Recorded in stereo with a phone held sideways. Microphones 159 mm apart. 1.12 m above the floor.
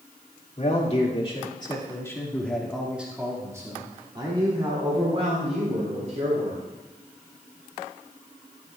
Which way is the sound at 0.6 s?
50° left (ahead or behind).